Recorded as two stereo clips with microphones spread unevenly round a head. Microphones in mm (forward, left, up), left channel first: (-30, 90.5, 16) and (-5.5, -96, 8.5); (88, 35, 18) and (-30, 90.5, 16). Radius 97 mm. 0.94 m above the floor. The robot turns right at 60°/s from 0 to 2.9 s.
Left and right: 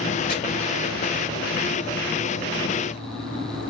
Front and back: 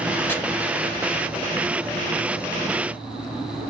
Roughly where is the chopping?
Ahead left.